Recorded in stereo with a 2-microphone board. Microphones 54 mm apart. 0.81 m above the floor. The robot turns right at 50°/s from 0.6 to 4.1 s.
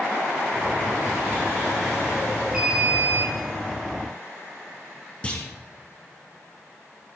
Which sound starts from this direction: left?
A clunk, at 5.2 s.